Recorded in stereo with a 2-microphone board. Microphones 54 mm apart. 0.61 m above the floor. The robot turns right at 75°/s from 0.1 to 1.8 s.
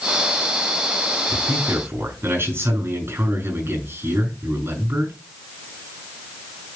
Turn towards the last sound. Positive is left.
turn(degrees=-50)